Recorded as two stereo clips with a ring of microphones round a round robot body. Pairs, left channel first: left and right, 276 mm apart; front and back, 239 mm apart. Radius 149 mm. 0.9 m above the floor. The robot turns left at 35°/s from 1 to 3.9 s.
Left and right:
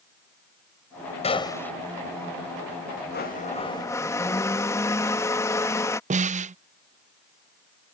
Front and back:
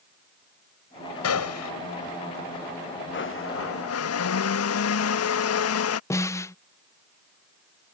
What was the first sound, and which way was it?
A gunshot, 20° left.